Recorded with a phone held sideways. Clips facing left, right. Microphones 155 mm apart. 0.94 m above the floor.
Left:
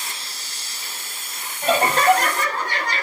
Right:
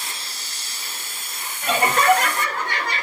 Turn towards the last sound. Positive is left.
turn(degrees=35)  # may be behind; listen again after turning